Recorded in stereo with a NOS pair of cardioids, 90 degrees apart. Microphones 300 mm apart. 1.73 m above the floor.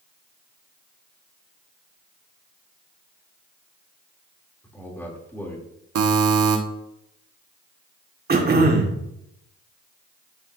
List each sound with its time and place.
4.6 s a man speaking: 5° left, 3 m
6.0 s a buzzer: 50° right, 1.4 m
8.3 s throat clearing: 30° right, 1.8 m